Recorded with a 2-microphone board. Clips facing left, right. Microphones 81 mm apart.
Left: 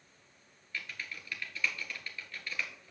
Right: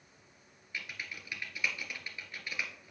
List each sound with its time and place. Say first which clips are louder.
0.7 s typing on a keyboard: even; 15° right (ahead or behind), 1.7 m